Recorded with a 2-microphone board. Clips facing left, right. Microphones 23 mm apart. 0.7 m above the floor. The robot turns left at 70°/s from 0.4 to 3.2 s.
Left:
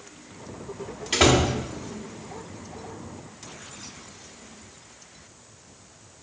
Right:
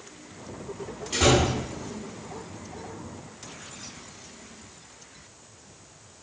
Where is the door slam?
40° left (ahead or behind), 1.4 m; by 1.5 s 60° left (ahead or behind), 1.4 m.